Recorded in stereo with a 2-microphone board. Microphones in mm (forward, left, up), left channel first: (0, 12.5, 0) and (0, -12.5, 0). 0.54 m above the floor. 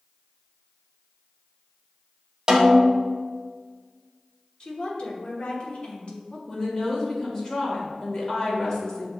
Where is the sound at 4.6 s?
45° left (ahead or behind), 1.0 m.